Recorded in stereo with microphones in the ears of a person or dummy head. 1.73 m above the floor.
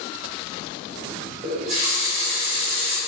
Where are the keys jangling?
No keys jangling in this recording.